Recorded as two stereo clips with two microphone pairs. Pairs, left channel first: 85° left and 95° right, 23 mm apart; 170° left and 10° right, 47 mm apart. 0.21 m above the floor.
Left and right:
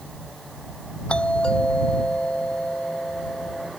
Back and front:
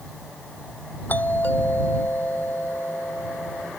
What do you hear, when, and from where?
1.1 s a doorbell: 115° left